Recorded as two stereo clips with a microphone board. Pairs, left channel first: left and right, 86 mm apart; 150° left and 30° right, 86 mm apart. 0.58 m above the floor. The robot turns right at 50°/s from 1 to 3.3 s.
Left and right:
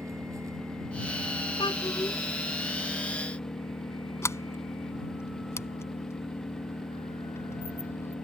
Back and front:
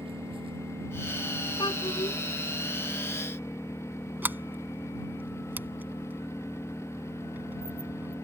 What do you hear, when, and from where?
0.0 s an engine running: 35° right; by 8.2 s 80° left
1.6 s a child speaking: 115° left; by 2.2 s 145° left
4.2 s a sliding door: 35° left